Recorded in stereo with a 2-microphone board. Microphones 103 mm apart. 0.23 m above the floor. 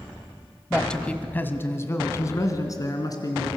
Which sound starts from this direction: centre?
A man speaking, at 0.7 s.